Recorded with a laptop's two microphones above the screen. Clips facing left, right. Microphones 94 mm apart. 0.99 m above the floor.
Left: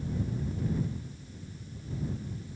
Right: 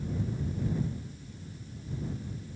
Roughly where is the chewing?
No chewing in this recording.